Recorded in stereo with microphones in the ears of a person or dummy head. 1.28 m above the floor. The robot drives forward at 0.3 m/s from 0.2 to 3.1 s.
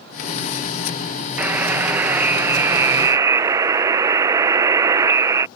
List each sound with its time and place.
1.4 s a buzzer: 10° right (ahead or behind); by 5.5 s 20° right (ahead or behind)